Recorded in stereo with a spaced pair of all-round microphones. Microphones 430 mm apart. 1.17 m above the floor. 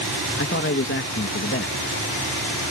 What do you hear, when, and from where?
0.4 s a man speaking: 30° left (ahead or behind)